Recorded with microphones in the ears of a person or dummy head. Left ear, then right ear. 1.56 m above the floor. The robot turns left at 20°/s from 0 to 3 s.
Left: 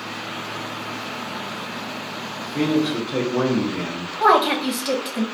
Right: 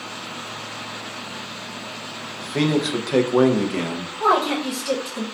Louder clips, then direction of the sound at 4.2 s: Left 3 dB; 10° left (ahead or behind).